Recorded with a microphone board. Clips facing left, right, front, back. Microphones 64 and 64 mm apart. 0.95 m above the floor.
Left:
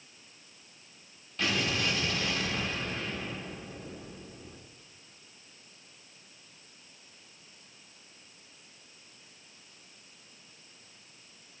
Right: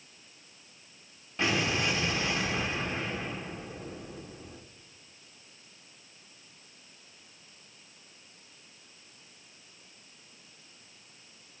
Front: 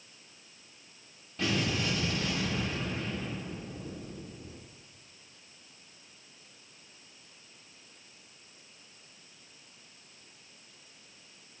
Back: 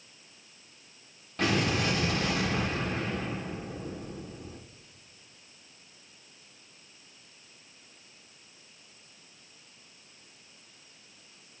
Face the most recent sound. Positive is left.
turn(degrees=-155)